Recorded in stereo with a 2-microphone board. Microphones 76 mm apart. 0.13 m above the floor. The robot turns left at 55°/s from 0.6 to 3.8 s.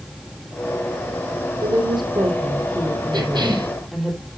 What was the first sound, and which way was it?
A woman speaking, 60° right.